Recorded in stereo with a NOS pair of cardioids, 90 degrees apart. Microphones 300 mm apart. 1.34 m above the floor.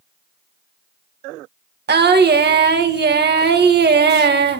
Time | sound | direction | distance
1.9 | singing | 35° right | 1.6 m